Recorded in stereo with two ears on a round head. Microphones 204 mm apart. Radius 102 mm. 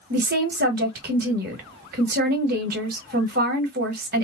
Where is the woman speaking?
45° right (ahead or behind), 1.1 m.